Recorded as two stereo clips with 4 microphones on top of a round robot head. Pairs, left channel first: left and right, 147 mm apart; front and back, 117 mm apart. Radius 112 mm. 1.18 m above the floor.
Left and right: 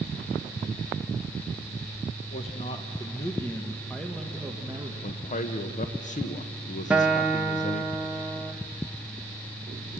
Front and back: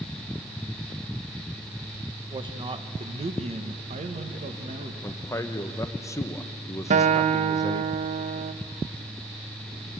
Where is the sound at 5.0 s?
65° left, 1.2 m.